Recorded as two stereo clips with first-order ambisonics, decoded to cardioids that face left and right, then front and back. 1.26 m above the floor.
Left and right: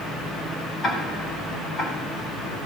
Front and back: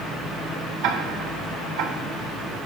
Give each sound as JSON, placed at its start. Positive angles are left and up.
{"t": 0.8, "sound": "ticking", "azimuth_deg": 155, "distance_m": 4.5}